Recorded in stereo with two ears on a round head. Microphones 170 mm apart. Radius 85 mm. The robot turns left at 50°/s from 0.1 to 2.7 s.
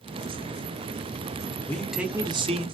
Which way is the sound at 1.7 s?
10° left.